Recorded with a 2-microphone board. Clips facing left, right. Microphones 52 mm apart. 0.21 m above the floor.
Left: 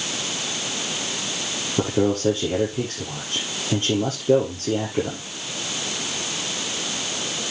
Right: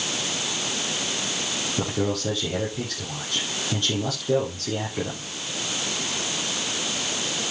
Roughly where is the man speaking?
Left.